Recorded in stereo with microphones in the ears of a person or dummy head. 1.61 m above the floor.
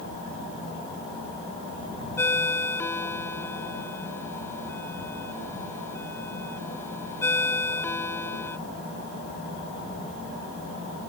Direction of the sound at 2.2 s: 15° left (ahead or behind).